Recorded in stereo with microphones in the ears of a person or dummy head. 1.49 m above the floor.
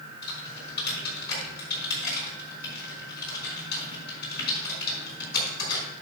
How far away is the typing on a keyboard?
About 5 m.